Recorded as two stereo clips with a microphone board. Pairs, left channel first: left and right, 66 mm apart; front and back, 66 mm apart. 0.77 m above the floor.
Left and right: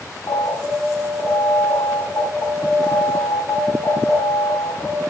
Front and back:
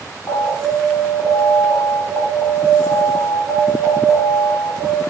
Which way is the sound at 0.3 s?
65° left.